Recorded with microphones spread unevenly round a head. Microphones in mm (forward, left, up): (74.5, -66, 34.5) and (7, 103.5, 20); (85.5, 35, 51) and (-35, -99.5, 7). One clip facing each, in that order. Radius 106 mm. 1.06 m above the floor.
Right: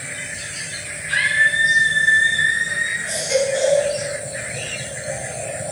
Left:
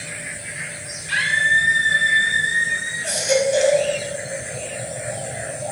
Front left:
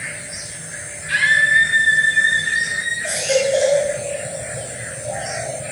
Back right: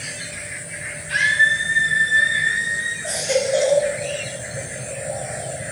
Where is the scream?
70° left, 5 m; by 2.9 s 55° left, 7 m.